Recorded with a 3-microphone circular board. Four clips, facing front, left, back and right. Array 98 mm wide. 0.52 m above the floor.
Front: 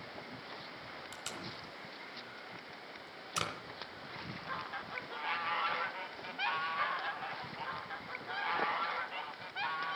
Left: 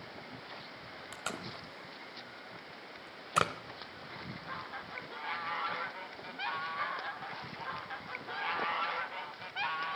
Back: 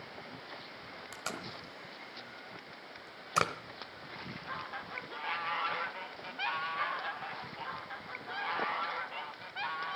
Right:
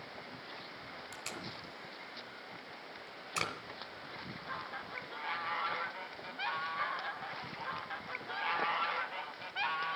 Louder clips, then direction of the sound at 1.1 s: Left 6 dB, back 7 dB; 130° left.